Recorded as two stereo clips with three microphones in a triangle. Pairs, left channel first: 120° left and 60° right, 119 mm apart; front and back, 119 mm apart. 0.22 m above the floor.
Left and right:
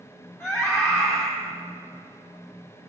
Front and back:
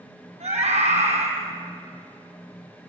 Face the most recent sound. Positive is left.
turn(degrees=-165)